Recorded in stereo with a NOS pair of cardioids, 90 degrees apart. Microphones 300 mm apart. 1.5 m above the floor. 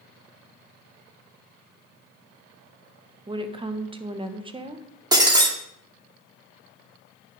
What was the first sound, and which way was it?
A woman speaking, 15° right.